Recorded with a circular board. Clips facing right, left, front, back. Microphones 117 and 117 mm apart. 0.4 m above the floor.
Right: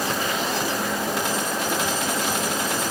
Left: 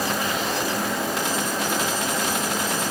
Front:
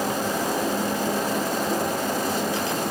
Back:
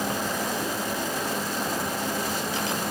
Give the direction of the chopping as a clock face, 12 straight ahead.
No chopping in this recording.